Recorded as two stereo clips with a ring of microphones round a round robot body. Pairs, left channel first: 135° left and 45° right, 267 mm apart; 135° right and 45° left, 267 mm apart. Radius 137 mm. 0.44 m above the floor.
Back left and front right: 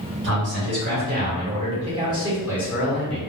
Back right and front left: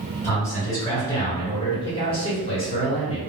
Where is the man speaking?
60° right, 2.0 m; by 3.2 s 150° right, 1.4 m.